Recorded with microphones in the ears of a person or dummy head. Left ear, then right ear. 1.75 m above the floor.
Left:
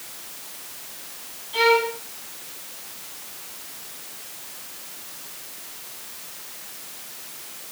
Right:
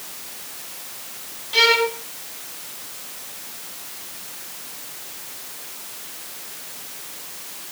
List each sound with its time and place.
1.5 s a violin: 55° right (ahead or behind), 6 m